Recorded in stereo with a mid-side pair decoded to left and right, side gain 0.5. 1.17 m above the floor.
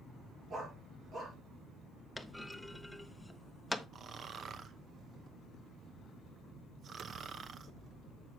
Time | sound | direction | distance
0.5 | a dog barking | 50° right | 5.5 m
2.2 | a clunk | 10° left | 0.9 m
3.9 | snoring | 45° right | 1.0 m